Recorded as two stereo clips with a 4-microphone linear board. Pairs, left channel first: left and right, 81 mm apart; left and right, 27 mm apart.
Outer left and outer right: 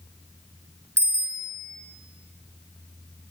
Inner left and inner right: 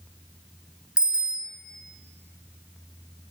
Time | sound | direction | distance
1.0 | a bicycle bell | 40° right (ahead or behind) | 3.5 m